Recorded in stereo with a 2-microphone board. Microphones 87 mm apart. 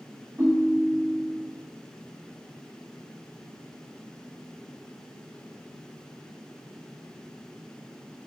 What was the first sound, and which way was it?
A ringtone, 30° right (ahead or behind).